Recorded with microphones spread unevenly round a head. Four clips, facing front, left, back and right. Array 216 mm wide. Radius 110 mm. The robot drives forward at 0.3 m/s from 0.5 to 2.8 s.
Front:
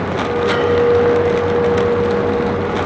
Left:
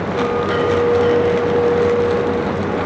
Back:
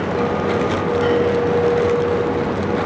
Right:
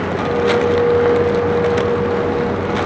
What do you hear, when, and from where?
0.2 s a clink: 140° left, 2.5 m; by 2.8 s 145° left, 3 m